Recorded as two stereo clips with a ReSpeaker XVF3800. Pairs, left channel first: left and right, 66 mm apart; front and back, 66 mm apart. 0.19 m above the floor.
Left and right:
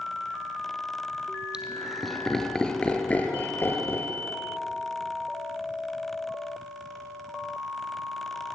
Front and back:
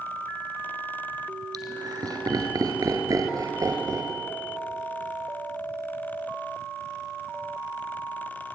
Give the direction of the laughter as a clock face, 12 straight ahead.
6 o'clock.